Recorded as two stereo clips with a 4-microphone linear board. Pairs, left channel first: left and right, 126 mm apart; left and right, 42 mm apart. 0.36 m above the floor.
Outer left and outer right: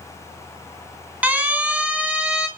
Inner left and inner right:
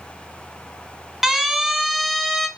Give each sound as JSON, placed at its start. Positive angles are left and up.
{"t": 1.2, "sound": "a siren", "side_deg": -10, "distance_m": 4.0}